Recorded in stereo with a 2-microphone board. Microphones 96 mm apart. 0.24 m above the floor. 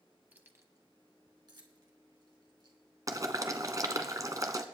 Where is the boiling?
40° right (ahead or behind), 1.2 m.